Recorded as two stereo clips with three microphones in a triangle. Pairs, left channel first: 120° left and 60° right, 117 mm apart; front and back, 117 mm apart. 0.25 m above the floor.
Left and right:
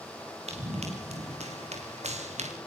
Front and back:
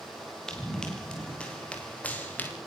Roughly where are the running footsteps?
Right.